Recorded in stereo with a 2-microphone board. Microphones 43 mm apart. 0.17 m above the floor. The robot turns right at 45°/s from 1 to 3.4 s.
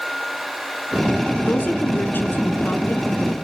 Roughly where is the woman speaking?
Ahead left.